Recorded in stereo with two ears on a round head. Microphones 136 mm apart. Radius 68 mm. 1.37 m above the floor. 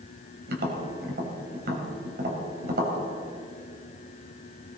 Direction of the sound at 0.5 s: 70° right (ahead or behind).